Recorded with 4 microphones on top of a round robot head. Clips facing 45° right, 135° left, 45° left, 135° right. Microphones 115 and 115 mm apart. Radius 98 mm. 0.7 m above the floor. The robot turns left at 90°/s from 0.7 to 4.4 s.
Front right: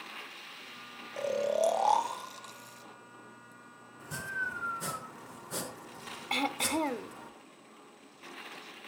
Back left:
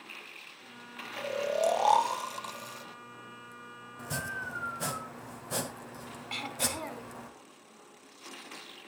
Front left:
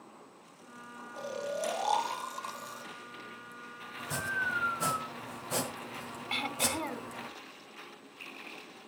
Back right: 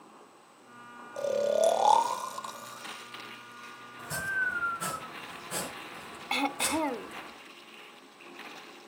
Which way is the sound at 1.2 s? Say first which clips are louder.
Front right 1 dB, back right 10 dB; 90° right.